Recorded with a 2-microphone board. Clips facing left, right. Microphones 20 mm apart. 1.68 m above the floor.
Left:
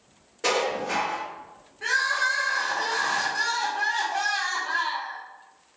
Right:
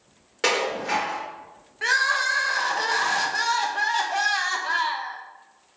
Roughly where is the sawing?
No sawing in this recording.